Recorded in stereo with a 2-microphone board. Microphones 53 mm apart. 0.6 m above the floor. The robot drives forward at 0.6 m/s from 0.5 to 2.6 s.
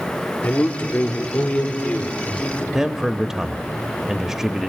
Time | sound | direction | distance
0.4 | a man speaking | 40° left (ahead or behind) | 1.7 m
2.7 | a man speaking | 10° right (ahead or behind) | 0.6 m